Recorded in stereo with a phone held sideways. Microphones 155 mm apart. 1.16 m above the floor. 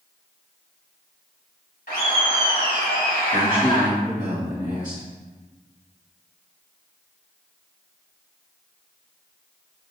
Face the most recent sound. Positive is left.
turn(degrees=-25)  # may be behind; listen again after turning